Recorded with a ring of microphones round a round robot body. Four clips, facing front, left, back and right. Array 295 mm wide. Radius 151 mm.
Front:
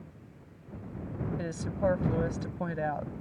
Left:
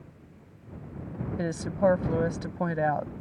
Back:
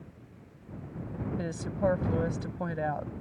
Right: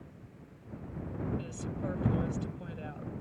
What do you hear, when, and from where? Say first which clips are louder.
1.4 s a woman speaking: left 13 dB, back 1 dB; 90° left